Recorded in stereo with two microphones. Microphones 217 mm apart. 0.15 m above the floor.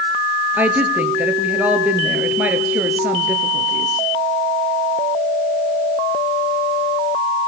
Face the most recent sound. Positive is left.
turn(degrees=-10)  # may be behind; listen again after turning